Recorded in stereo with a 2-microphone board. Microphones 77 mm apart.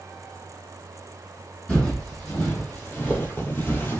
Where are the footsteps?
15° left (ahead or behind), 1.8 m; by 4.0 s 25° left (ahead or behind), 1.1 m.